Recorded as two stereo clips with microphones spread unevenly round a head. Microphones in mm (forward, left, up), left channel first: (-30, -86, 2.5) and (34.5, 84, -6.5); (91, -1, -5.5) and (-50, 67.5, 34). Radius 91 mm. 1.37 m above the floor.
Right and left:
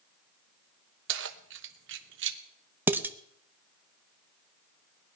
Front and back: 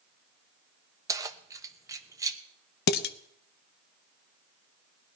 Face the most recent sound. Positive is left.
turn(degrees=-10)